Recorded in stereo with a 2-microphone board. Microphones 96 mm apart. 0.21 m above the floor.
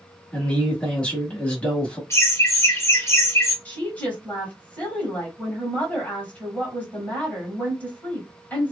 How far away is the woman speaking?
About 1.3 m.